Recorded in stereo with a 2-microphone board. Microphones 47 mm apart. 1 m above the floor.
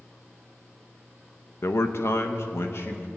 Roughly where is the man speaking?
Left.